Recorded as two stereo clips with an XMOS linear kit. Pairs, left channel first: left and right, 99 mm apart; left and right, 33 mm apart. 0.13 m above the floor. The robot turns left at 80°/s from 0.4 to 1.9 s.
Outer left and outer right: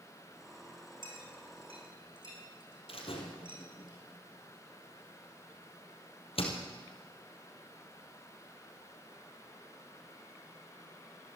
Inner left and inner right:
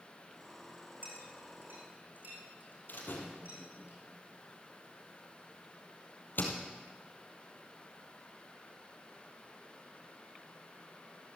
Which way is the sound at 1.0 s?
55° right (ahead or behind).